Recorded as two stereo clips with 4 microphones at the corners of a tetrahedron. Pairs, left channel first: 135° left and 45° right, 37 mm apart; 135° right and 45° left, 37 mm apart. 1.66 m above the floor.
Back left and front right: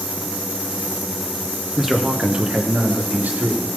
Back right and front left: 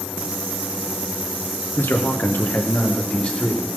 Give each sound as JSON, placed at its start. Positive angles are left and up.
{"t": 1.8, "sound": "a man speaking", "azimuth_deg": -130, "distance_m": 1.2}